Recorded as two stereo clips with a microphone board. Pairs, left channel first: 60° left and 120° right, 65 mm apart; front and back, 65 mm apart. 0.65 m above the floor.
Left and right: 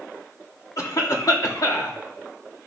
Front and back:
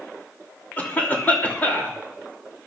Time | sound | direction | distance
0.8 | a cough | 60° left | 2.5 m